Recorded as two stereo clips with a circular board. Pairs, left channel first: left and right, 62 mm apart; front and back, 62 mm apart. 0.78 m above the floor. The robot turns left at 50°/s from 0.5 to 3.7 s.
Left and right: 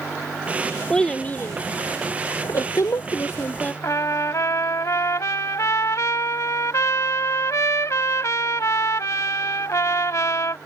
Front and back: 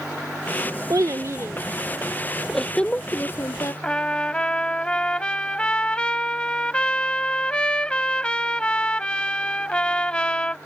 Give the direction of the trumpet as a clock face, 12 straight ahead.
10 o'clock.